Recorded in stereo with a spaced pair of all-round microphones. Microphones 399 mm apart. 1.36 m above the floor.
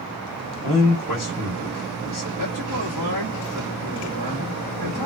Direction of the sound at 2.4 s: 50° right (ahead or behind).